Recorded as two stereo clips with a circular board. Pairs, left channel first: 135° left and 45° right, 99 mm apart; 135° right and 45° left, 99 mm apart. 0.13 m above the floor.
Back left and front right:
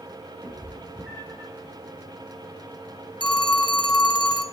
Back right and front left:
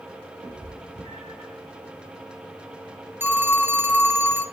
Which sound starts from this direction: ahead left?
A cat meowing, at 0.4 s.